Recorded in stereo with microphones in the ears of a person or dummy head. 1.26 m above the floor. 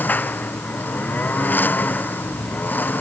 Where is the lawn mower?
10° left (ahead or behind).